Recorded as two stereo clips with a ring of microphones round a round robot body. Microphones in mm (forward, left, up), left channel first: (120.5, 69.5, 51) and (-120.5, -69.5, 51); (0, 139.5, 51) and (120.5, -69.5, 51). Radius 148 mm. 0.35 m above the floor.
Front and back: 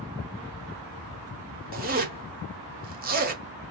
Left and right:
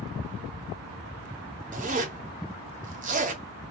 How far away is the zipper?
About 1.0 m.